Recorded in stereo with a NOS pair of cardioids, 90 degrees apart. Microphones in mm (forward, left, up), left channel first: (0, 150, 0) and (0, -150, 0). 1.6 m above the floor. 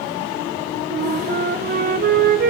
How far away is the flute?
About 0.8 m.